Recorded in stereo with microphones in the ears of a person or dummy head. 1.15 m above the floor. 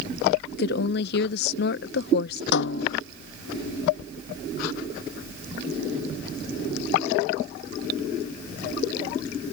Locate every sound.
0.5 s a woman speaking: 55° left (ahead or behind)
2.5 s a snare drum: 60° left (ahead or behind)